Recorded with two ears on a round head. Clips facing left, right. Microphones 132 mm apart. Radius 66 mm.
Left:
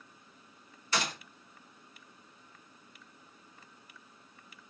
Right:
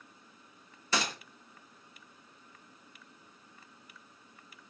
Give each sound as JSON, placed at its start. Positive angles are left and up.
{"t": 0.9, "sound": "a gunshot", "side_deg": -70, "distance_m": 0.6}